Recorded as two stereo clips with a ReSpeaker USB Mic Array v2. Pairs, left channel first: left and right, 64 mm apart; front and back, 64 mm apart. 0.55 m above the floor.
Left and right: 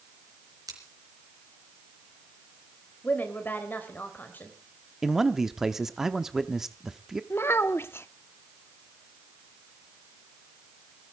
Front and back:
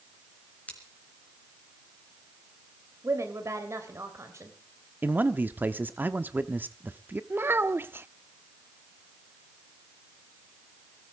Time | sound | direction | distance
0.7 | scissors | 70° right | 3.5 m
3.0 | a woman speaking | 145° left | 3 m
5.0 | a man speaking | 170° right | 0.9 m
7.3 | a child speaking | 135° left | 0.6 m